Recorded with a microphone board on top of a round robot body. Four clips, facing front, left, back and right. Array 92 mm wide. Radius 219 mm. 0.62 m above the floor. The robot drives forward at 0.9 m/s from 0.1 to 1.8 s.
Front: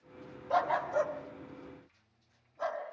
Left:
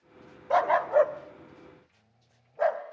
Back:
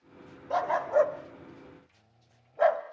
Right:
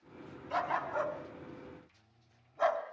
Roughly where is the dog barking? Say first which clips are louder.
Left 11 dB, back 4 dB; left.